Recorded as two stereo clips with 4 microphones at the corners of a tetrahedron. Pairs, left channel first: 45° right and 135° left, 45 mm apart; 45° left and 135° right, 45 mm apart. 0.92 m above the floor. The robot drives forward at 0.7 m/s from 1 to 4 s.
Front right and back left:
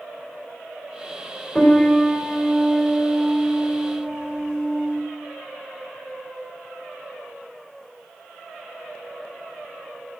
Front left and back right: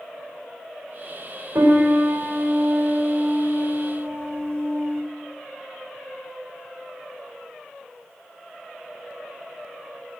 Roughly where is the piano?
Behind right.